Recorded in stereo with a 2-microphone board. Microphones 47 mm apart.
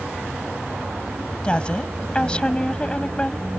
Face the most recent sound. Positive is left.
turn(degrees=20)  # may be behind; listen again after turning